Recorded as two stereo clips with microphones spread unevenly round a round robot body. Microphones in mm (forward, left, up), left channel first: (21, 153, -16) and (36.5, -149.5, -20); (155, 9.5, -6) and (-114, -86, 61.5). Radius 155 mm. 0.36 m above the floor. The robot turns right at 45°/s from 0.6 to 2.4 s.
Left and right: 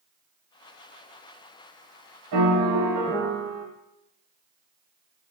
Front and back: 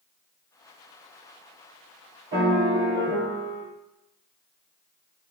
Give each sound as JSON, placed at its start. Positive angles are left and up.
{"t": 2.3, "sound": "a piano", "azimuth_deg": -110, "distance_m": 1.0}